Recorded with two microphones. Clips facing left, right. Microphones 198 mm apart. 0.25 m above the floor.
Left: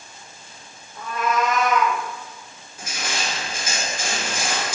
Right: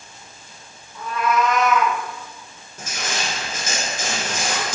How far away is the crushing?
About 1.0 m.